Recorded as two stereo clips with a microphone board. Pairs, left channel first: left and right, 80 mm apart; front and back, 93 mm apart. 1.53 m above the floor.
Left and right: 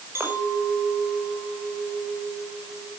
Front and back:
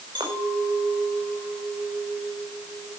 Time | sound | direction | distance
0.1 | a clink | 150° right | 5.5 m